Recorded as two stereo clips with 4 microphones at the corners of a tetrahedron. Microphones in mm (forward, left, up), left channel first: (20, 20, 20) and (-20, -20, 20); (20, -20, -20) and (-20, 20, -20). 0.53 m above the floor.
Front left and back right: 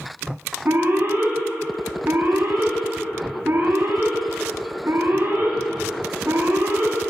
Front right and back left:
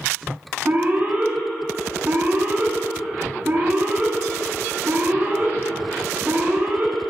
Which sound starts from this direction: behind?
An alarm, at 0.7 s.